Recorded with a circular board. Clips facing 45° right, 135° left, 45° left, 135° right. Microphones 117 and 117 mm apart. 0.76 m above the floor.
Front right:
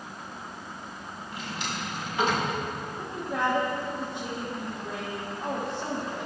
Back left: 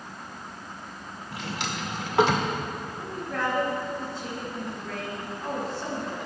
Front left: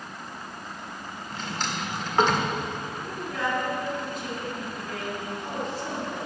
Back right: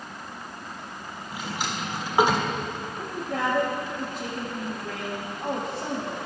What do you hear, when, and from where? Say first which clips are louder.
1.3 s a drawer: back left 3 dB, back right 1 dB; 145° left, 1.4 m
3.0 s a woman speaking: front right 2 dB, back right 3 dB; 115° right, 2.5 m